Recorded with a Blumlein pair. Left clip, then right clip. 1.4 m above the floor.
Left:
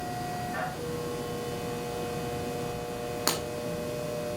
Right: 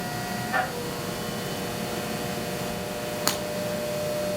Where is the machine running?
35° right, 1.6 m.